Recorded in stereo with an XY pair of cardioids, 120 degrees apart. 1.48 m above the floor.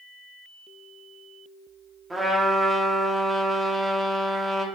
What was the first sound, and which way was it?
A trumpet, 15° right.